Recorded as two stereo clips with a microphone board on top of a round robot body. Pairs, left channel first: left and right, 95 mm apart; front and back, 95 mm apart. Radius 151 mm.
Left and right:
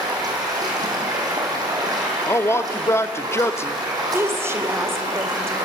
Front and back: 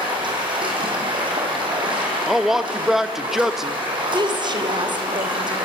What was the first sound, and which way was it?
Running water, 140° right.